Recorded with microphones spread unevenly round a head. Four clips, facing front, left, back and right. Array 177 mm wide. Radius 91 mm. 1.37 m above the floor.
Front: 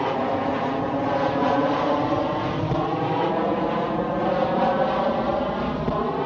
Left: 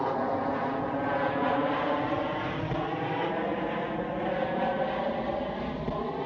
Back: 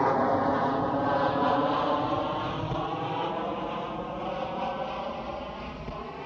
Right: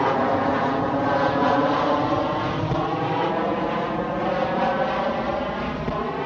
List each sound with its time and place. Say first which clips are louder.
0.0 s an aircraft: right 8 dB, front 1 dB; 80° right; by 6.3 s 15° right